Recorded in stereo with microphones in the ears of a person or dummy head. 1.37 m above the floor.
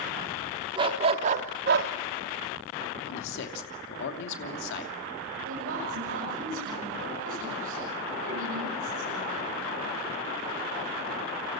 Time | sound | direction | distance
0.8 | a dog barking | 25° right (ahead or behind) | 1.3 m
3.0 | a man speaking | 75° left (ahead or behind) | 2.5 m
5.4 | a woman speaking | 80° right | 8 m